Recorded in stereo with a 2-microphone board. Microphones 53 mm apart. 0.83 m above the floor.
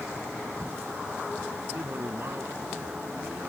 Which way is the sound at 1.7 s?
50° right (ahead or behind).